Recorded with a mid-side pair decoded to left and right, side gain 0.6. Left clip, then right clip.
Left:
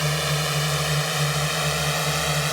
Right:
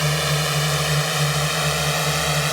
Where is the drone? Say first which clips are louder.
Right 3 dB; 15° right.